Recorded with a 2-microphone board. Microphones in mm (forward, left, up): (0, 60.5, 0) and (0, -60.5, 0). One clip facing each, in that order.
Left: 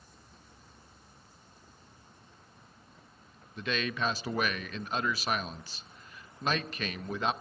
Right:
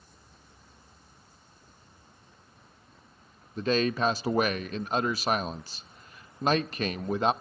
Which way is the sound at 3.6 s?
35° right (ahead or behind).